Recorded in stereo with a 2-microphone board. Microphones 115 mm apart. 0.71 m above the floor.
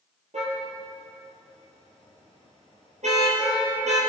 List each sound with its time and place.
0.3 s a car horn: 90° right, 6.5 m